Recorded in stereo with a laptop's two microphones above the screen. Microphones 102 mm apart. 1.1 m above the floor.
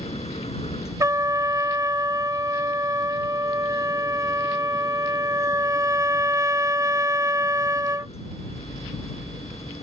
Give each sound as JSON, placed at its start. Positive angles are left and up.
{"t": 0.0, "sound": "a machine running", "side_deg": 85}
{"t": 1.0, "sound": "a trumpet", "side_deg": -30}